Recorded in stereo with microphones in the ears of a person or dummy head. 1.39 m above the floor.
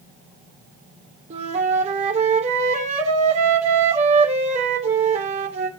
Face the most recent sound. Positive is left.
turn(degrees=-40)  # may be behind; listen again after turning